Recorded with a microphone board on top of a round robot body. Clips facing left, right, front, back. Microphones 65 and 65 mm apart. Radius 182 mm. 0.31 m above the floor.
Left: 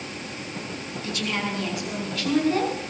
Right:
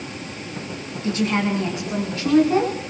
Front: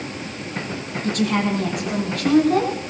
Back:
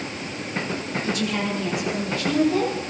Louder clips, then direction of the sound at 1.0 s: Right 7 dB, front 6 dB; 30° right.